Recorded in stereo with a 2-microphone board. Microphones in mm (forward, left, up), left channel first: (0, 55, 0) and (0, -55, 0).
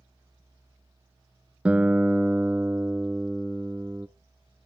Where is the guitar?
10° right (ahead or behind), 0.7 m.